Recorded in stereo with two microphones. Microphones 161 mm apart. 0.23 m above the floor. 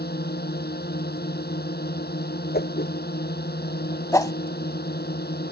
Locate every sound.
0.0 s a drone: 80° left
2.5 s a whoosh: 85° left
4.1 s a whoosh: 20° left (ahead or behind)